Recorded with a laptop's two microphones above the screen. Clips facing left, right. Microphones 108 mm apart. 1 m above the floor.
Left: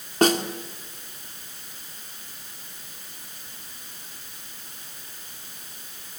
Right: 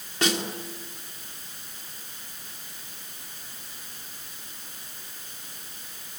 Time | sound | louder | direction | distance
0.2 | a snare drum | left 7 dB | 45° left (ahead or behind) | 2.5 m